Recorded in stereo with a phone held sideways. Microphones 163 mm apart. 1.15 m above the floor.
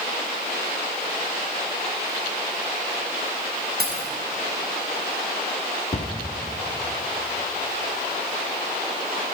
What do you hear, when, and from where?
3.8 s keys jangling: 85° right, 4 m
5.9 s a cupboard door: 50° left (ahead or behind), 0.9 m